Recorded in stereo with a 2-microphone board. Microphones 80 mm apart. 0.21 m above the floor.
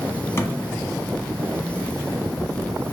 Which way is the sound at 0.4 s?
35° left (ahead or behind).